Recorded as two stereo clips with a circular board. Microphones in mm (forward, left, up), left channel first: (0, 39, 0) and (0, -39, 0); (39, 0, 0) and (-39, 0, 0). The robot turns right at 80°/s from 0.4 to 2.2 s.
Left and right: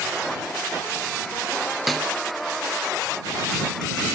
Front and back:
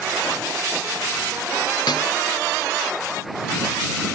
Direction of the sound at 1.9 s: Straight ahead.